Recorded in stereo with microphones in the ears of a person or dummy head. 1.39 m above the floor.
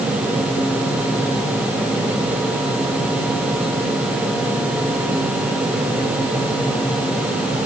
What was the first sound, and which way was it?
Only background noise.